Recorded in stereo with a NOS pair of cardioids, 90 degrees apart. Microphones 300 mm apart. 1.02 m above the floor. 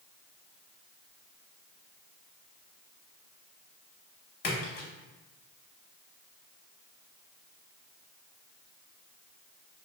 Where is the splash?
50° left, 1.2 m.